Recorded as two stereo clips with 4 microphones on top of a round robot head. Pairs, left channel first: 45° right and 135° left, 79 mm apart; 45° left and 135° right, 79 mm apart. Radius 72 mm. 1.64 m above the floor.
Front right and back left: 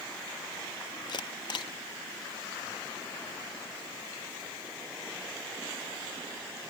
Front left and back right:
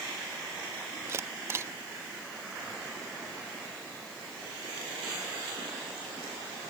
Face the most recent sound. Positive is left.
turn(degrees=-80)